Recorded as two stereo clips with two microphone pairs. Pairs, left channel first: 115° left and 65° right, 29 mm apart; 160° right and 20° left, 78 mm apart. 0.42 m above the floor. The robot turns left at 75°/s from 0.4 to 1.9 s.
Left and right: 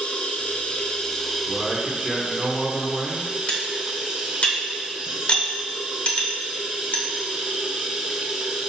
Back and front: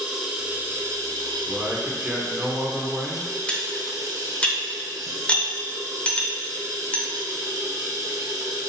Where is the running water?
100° left, 0.8 m; by 8.7 s 10° right, 0.8 m.